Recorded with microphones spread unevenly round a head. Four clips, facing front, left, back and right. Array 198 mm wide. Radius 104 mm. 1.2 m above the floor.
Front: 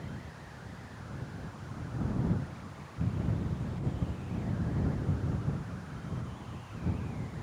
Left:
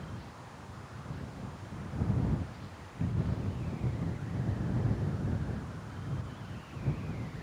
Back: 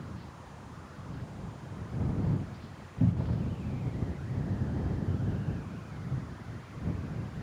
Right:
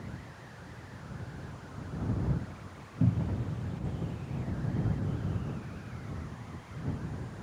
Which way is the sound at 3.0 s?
140° right.